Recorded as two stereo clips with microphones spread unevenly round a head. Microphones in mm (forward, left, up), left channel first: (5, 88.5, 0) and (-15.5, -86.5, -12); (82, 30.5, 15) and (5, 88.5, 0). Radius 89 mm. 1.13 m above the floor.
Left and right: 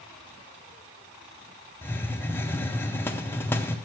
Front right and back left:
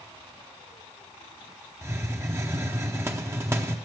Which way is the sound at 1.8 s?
160° left.